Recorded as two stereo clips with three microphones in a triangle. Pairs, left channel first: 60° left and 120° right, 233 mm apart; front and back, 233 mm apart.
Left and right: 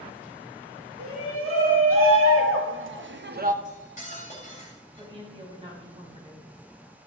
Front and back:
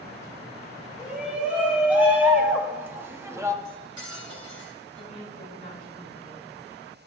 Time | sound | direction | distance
1.0 | a shout | 95° right | 2.5 m
3.6 | cutlery clinking | straight ahead | 3 m
5.0 | a woman speaking | 55° right | 4.5 m